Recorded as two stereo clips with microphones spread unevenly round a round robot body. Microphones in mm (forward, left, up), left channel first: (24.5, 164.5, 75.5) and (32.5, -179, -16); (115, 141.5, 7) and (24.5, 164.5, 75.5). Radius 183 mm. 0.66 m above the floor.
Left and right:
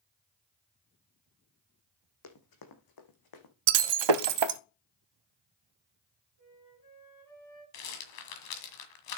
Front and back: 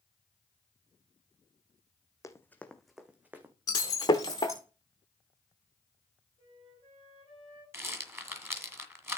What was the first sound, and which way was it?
Running footsteps, 60° left.